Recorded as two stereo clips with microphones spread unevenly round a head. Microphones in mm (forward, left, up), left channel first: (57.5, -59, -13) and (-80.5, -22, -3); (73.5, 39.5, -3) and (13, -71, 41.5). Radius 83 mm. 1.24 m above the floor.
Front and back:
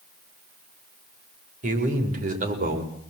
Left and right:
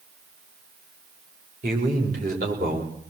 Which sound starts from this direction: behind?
A man speaking, at 1.6 s.